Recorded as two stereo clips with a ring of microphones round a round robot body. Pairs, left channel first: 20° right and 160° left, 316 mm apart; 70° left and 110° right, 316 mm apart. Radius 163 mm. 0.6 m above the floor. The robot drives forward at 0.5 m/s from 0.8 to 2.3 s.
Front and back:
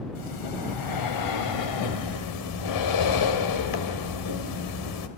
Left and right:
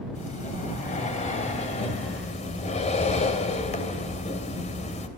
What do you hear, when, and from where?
0.1 s breathing: straight ahead, 3.5 m